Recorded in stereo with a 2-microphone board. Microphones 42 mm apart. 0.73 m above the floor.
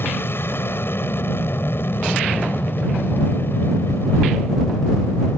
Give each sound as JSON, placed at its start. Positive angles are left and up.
{"t": 0.0, "sound": "an aircraft", "side_deg": 55}